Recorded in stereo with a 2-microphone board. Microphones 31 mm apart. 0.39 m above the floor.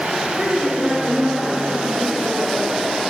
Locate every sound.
0.4 s a woman speaking: 25° right (ahead or behind), 1.4 m